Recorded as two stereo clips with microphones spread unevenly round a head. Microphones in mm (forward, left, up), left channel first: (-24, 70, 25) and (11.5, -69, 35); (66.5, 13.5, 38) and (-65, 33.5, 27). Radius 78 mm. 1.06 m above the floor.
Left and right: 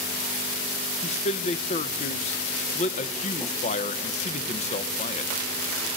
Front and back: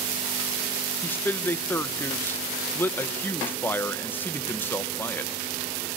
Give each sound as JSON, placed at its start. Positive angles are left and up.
{"t": 1.0, "sound": "a man speaking", "azimuth_deg": 70, "distance_m": 0.7}